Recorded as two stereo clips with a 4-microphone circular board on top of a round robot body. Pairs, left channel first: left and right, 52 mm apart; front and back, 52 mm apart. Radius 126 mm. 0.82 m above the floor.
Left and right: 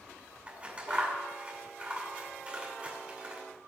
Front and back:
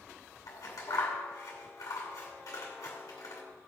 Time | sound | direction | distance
0.5 | scissors | 20° right | 2.5 m